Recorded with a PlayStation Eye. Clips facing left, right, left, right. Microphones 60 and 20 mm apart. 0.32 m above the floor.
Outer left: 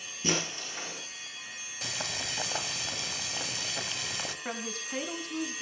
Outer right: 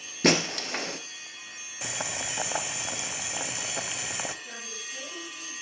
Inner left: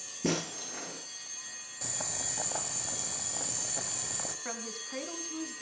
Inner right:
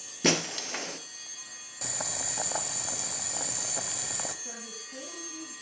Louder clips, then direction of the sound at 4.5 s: Outer left 4 dB, inner left 2 dB; 55° left (ahead or behind).